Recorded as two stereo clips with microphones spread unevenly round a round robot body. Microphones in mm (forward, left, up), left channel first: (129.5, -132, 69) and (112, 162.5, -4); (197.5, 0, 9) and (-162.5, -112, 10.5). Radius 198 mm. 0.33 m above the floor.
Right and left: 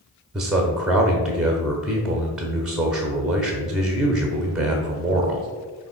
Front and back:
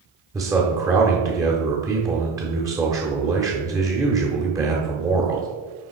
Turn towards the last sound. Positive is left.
turn(degrees=130)